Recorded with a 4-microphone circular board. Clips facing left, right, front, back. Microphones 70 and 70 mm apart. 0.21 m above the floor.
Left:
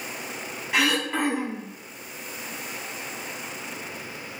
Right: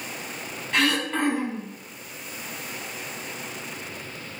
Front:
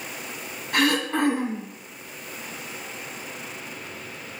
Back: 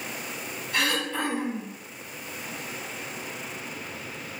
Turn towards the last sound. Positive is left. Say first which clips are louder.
# even, front 5 dB
turn(degrees=15)